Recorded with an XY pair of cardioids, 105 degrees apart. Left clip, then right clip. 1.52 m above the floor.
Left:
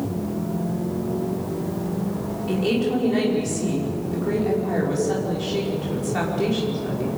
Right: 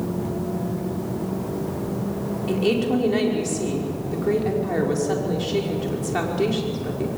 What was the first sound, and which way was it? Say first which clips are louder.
A woman speaking: right 1 dB; 25° right.